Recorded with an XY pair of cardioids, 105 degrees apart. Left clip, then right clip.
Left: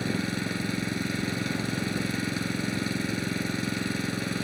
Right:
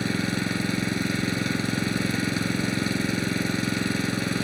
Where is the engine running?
25° right.